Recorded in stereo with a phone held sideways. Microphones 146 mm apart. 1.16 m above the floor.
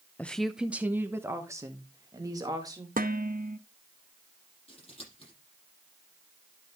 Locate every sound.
0.2 s a woman speaking: 10° left (ahead or behind), 0.5 m; by 2.9 s 25° right (ahead or behind), 2.5 m
3.0 s dishes clattering: 75° right (ahead or behind), 0.9 m
4.7 s scissors: 40° left (ahead or behind), 7 m